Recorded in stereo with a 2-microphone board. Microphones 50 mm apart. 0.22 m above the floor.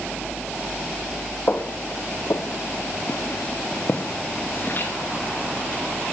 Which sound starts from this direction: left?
Footsteps, at 1.5 s.